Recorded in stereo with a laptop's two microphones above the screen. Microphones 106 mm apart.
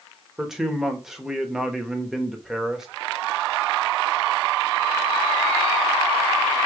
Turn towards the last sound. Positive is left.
turn(degrees=-5)  # may be behind; listen again after turning